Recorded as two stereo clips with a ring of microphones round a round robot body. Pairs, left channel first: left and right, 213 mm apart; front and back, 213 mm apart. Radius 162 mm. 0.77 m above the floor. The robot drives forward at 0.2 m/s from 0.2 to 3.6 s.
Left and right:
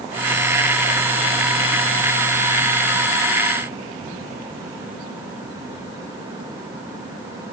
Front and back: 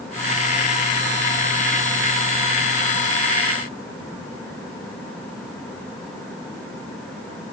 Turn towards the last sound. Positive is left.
No sound to turn to.